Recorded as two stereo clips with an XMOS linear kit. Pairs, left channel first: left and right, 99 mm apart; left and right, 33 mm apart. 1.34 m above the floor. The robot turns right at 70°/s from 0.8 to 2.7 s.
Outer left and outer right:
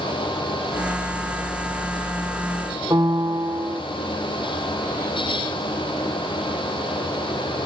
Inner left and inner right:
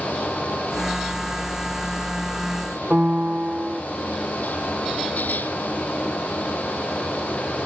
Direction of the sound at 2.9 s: 45° right (ahead or behind).